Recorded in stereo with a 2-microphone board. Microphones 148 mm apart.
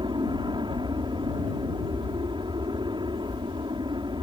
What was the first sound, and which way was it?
An aircraft, 30° right (ahead or behind).